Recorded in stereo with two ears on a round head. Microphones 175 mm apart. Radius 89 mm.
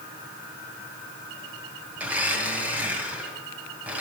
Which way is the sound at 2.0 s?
10° right (ahead or behind).